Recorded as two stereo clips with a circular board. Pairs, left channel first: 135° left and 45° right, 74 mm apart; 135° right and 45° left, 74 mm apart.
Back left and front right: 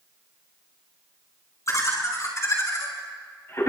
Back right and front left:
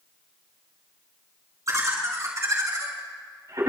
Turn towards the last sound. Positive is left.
turn(degrees=80)